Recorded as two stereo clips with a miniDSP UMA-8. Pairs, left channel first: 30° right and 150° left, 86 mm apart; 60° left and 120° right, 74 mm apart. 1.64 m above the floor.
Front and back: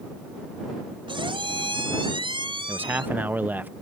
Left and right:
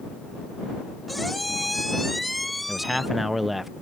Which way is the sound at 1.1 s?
150° left.